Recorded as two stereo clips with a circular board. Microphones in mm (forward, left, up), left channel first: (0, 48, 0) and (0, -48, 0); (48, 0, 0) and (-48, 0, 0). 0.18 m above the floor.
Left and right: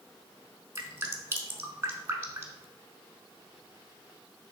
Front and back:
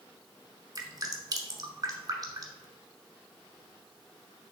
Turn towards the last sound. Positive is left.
turn(degrees=-150)